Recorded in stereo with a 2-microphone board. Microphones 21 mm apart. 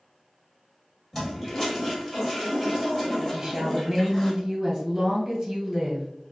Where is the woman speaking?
30° right (ahead or behind), 1.8 m.